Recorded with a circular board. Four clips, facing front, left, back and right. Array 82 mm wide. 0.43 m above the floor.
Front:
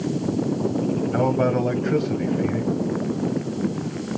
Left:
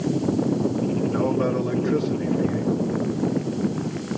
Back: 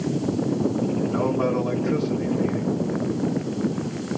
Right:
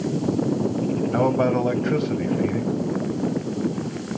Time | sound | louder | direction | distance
1.1 | a man speaking | right 5 dB, front 3 dB | 60° right | 2 m